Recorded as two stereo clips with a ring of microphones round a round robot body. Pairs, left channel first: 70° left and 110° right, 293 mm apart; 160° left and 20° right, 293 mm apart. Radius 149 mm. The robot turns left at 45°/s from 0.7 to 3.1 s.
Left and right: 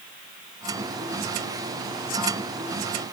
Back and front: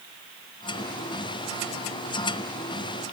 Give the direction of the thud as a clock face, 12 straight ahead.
I don't hear a thud.